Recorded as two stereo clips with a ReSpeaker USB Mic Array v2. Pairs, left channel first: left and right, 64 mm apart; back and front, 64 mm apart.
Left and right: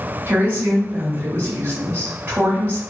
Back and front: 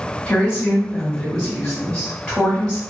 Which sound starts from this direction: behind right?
A woman speaking, at 0.3 s.